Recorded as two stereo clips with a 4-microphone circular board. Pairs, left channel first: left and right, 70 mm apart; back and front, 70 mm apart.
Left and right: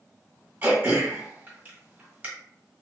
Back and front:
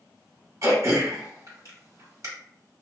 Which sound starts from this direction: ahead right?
Throat clearing, at 0.6 s.